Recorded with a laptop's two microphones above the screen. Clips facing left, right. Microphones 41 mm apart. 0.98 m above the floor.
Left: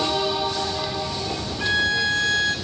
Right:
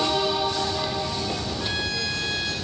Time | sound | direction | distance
1.6 | a violin | 50° left (ahead or behind) | 1.2 m